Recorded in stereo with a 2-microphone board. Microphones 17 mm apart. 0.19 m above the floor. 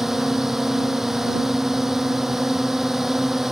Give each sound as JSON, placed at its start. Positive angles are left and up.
{"t": 0.0, "sound": "a drone", "side_deg": -20}